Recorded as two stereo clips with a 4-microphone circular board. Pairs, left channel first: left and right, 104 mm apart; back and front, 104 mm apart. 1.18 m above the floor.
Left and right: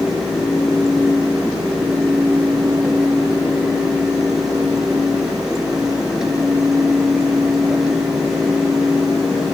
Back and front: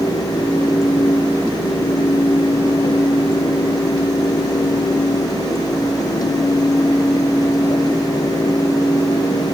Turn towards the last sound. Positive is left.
No sound to turn to.